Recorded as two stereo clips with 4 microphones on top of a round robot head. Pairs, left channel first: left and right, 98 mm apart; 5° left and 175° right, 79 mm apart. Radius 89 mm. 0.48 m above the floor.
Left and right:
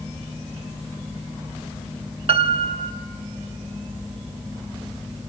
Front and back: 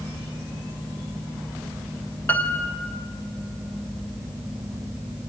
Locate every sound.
2.3 s a piano: 65° right, 1.0 m